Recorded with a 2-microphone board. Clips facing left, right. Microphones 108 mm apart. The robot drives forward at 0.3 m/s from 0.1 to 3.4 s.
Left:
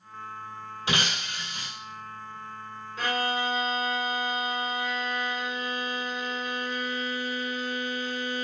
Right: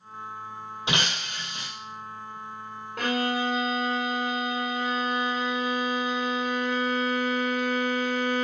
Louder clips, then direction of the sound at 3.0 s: Right 2 dB; 80° right.